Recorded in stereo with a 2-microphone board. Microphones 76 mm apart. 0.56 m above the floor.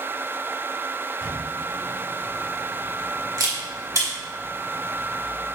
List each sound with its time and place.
1.2 s a camera shutter: 50° right (ahead or behind), 1.5 m